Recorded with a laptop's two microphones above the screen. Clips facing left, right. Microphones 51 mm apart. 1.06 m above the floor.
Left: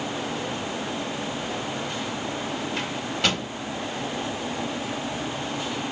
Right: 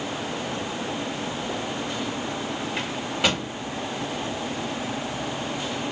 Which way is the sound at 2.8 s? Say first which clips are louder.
Right 2 dB; 10° right (ahead or behind).